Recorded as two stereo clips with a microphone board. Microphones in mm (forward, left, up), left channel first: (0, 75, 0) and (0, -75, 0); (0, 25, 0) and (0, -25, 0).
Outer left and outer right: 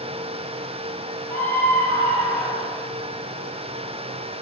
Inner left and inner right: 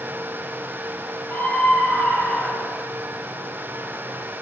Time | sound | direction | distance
1.3 | a scream | 15° left (ahead or behind) | 4 m